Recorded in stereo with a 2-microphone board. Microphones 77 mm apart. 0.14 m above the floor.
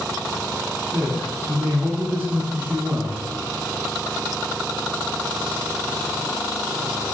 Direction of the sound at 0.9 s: Centre (ahead or behind).